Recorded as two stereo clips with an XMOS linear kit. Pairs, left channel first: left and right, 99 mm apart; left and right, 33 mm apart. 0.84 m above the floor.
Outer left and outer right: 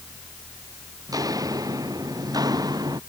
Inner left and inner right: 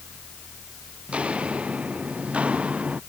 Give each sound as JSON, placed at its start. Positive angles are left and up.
{"t": 1.1, "sound": "footsteps", "side_deg": -35}